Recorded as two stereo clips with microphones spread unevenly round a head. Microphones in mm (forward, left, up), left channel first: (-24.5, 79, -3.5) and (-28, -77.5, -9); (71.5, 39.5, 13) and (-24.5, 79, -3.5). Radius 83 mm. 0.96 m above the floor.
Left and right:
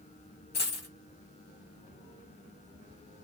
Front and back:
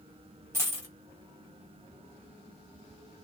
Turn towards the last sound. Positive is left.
turn(degrees=90)